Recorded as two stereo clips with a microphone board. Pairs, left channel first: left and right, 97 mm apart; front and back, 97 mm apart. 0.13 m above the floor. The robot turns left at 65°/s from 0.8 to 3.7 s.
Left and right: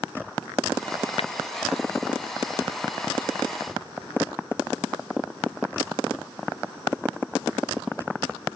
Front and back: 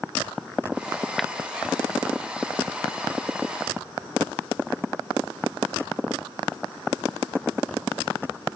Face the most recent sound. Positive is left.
turn(degrees=-70)